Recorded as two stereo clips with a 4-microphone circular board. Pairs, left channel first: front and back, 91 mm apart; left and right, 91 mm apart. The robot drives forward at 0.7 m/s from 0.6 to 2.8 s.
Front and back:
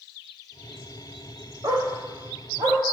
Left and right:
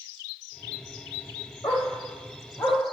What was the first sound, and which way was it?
A dog barking, 140° left.